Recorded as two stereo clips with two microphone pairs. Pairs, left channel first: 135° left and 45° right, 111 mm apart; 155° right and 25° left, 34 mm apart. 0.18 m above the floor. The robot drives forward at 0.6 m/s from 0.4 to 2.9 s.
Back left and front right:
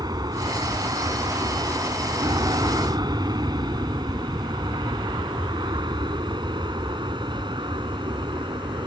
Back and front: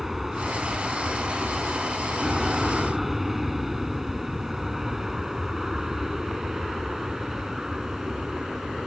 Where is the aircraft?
55° right; by 8.9 s 40° right.